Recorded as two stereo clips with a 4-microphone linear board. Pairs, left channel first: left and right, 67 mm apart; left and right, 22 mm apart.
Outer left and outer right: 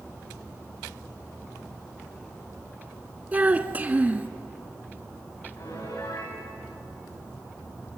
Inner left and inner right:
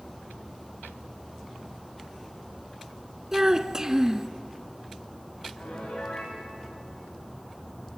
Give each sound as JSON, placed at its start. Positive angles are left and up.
{"t": 3.3, "sound": "a child speaking", "side_deg": -25, "distance_m": 0.8}
{"t": 5.6, "sound": "a piano", "side_deg": 65, "distance_m": 9.0}